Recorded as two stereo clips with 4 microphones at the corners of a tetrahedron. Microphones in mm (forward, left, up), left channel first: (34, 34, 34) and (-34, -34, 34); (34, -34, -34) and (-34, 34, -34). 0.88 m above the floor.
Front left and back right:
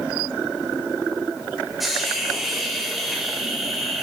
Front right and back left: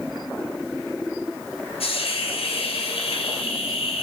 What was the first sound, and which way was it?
A hiss, 45° right.